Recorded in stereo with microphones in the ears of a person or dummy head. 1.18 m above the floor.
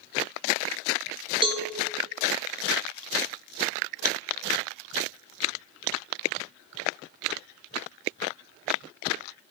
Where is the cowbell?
25° right (ahead or behind), 0.6 m.